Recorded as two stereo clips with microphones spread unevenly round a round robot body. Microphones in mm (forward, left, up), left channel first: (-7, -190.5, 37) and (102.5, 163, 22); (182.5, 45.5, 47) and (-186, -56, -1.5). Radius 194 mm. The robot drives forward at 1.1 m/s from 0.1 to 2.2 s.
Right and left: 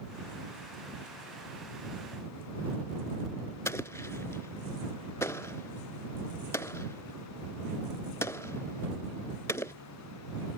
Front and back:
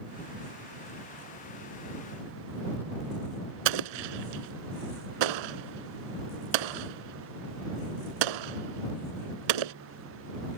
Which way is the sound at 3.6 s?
170° left.